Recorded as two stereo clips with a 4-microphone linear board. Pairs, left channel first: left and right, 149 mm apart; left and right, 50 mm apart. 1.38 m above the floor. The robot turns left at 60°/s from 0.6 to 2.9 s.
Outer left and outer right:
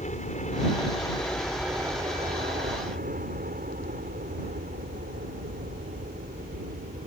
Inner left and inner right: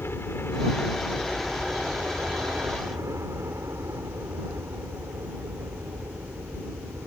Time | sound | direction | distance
0.0 | a helicopter | 55° left | ?